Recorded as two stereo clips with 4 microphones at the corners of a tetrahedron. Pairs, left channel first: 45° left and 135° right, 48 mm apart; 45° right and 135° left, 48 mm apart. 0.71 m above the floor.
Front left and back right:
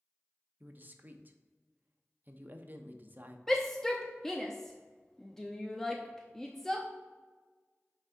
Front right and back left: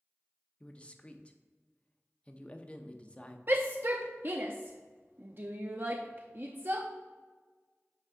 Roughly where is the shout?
Behind left.